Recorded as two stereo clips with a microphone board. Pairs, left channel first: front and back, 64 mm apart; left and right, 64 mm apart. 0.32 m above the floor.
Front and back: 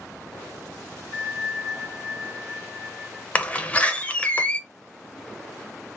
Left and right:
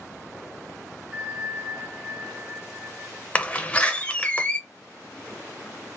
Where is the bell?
Straight ahead, 2 m.